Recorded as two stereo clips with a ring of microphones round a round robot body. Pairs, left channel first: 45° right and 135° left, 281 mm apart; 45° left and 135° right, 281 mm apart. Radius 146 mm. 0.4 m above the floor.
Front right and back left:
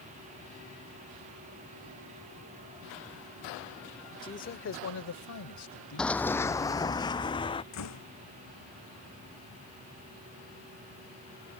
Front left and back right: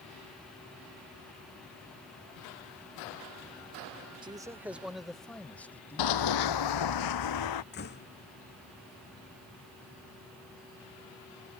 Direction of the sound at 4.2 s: 95° right.